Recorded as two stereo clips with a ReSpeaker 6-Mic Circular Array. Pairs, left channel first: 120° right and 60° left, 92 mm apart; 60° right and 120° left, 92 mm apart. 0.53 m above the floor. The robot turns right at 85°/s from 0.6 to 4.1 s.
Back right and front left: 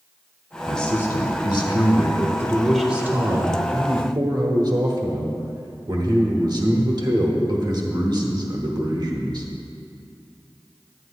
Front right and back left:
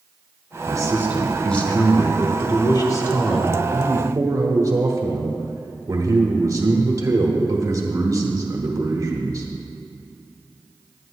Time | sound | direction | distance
0.7 | a man speaking | 150° left | 1.0 m